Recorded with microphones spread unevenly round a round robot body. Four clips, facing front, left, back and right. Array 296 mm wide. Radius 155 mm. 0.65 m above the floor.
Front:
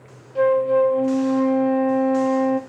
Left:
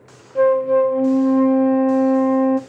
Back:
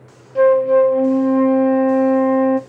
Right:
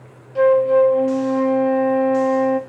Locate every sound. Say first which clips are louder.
0.3 s a flute: right 1 dB, back 5 dB; 150° left, 0.7 m